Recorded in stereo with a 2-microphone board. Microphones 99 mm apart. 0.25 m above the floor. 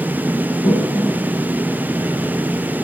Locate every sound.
0.6 s a toilet flushing: 55° left (ahead or behind), 2.5 m